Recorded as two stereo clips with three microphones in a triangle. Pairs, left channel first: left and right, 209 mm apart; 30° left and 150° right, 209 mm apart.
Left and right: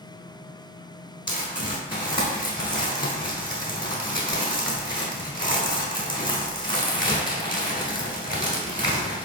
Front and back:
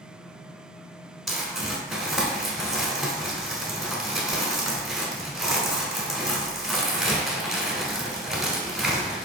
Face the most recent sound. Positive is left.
turn(degrees=120)